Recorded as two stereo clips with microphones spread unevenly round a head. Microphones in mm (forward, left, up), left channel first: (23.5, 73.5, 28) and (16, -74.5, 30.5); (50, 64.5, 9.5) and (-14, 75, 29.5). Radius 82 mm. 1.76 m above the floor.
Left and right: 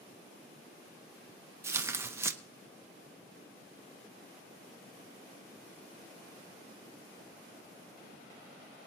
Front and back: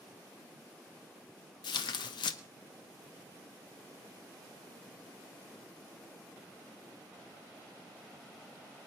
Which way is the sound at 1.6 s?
20° right.